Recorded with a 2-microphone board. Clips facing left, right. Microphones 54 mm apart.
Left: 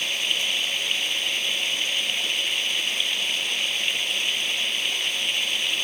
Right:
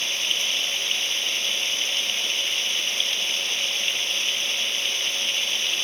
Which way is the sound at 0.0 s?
10° left (ahead or behind).